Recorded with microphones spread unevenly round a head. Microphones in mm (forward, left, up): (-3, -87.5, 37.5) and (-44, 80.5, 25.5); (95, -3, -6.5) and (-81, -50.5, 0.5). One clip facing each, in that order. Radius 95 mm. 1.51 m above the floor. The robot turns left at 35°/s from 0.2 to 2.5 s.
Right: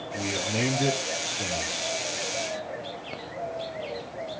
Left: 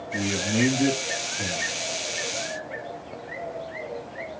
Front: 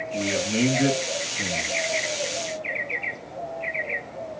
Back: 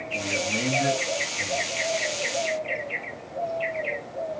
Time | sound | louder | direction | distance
0.1 | a man speaking | left 5 dB, front 5 dB | 75° left | 2.5 m